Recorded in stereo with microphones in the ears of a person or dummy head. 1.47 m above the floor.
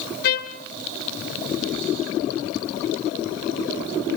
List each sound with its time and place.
0.2 s a trumpet: 55° left (ahead or behind), 1.8 m